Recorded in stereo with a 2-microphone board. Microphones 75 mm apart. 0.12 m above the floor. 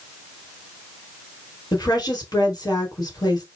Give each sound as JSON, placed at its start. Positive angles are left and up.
{"t": 1.7, "sound": "a woman speaking", "side_deg": 60, "distance_m": 3.5}